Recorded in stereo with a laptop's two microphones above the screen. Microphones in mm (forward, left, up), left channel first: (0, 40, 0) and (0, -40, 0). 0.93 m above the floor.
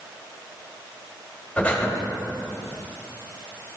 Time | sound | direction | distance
1.6 | breathing | 15° left (ahead or behind) | 2 m